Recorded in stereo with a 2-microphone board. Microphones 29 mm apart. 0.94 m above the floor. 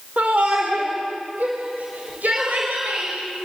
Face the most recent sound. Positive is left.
turn(degrees=-70)  # may be behind; listen again after turning